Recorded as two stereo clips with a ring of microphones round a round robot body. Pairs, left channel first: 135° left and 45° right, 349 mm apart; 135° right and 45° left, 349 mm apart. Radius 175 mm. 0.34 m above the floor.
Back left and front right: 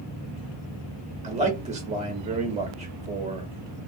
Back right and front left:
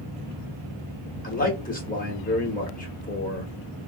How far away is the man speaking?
About 0.9 m.